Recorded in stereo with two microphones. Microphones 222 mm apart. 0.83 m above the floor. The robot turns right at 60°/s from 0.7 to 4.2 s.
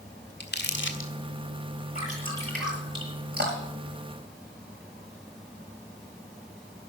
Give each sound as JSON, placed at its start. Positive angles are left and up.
{"t": 0.4, "sound": "crumpling", "side_deg": 50, "distance_m": 1.9}
{"t": 1.9, "sound": "dripping", "side_deg": 40, "distance_m": 7.5}